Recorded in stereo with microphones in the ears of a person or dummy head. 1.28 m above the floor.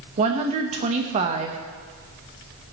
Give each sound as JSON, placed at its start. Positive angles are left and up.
{"t": 0.2, "sound": "a woman speaking", "side_deg": -35, "distance_m": 1.1}